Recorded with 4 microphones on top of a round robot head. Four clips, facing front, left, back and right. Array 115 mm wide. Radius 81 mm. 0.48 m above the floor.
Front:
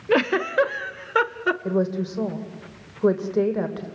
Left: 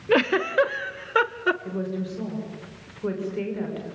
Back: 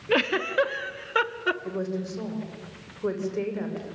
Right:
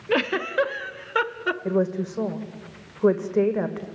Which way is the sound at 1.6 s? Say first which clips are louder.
Right 6 dB, front 7 dB; 55° right.